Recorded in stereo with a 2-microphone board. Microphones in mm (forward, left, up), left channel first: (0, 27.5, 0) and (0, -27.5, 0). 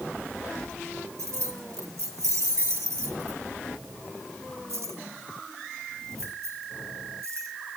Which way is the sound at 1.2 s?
70° right (ahead or behind).